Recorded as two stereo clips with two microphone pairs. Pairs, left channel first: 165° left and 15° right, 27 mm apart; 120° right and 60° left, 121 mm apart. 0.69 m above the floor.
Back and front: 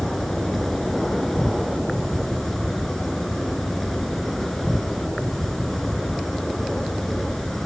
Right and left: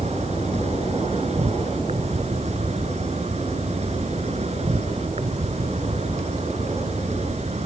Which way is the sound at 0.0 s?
85° left.